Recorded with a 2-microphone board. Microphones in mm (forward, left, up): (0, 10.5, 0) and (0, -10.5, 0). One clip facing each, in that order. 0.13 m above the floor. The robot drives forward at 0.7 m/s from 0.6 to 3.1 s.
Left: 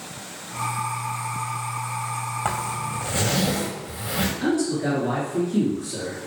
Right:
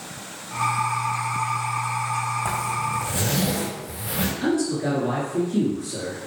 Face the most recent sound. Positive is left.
turn(degrees=0)  # may be behind; listen again after turning